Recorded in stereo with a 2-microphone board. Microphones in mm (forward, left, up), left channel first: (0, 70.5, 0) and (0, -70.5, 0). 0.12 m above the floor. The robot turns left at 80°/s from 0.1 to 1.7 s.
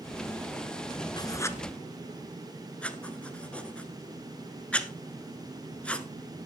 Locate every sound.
1.2 s writing: 30° left (ahead or behind), 1.0 m; by 6.1 s 10° left (ahead or behind), 1.0 m